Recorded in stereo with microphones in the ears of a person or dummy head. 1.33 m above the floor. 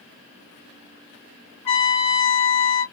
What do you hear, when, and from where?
1.6 s a trumpet: 40° left (ahead or behind), 1.6 m